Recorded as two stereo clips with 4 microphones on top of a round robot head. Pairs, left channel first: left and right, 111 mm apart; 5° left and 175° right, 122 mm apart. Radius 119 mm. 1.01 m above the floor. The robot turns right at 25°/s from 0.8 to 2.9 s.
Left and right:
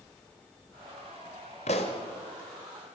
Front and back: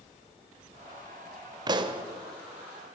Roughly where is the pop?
Behind left.